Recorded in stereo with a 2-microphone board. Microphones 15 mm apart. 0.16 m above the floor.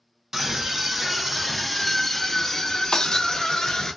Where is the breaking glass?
65° left (ahead or behind), 0.6 m.